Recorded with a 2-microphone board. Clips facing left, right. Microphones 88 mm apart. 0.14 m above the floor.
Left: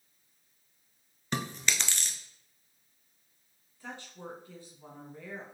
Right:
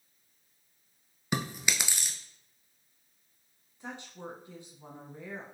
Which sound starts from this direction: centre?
Chewing, at 1.3 s.